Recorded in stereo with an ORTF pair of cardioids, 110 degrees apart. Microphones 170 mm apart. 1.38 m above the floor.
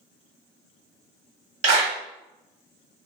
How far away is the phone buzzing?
No phone buzzing in this recording.